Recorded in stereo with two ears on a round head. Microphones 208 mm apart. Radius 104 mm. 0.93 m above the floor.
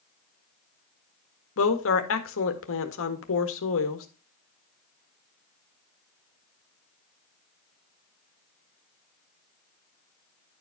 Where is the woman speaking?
60° left (ahead or behind), 1.7 m.